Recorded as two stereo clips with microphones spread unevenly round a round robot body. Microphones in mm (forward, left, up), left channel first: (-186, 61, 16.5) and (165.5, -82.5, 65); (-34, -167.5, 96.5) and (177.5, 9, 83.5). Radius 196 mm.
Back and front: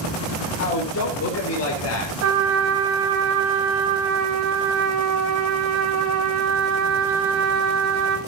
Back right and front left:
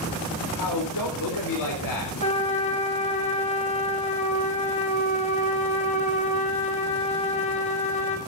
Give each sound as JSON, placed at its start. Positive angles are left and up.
{"t": 0.6, "sound": "a man speaking", "azimuth_deg": -150, "distance_m": 4.0}
{"t": 2.2, "sound": "a trumpet", "azimuth_deg": -75, "distance_m": 5.5}